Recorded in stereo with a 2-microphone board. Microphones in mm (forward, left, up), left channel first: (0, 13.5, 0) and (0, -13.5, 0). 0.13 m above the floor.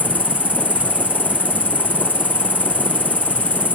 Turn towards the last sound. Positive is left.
turn(degrees=-80)